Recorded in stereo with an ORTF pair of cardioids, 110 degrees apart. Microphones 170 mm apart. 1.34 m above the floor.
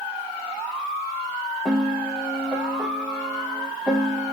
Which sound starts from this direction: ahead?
A piano, at 1.6 s.